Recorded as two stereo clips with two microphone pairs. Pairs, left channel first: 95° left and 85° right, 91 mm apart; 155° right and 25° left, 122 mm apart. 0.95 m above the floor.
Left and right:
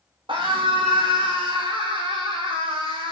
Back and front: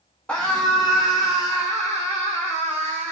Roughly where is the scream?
Right.